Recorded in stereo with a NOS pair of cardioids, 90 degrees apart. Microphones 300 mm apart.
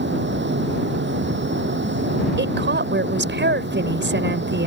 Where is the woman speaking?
40° right.